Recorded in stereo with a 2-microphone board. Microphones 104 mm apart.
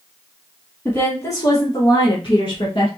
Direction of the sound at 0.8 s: 20° left (ahead or behind).